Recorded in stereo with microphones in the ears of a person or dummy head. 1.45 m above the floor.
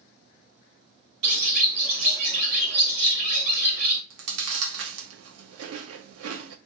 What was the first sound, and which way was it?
A bird, 75° right (ahead or behind).